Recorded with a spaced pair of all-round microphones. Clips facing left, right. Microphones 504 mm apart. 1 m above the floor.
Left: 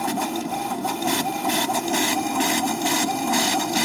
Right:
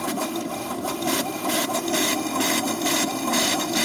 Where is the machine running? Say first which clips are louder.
Left 1 dB; 15° left (ahead or behind).